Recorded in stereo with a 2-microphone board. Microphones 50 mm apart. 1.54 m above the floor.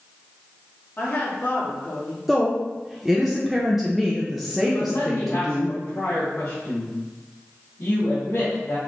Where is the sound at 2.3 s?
5° right (ahead or behind), 0.6 m.